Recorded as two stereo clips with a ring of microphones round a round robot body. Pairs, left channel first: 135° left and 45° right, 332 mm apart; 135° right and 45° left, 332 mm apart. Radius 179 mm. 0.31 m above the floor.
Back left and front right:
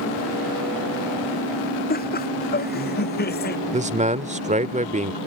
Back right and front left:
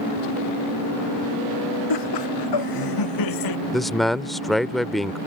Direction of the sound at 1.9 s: 160° right.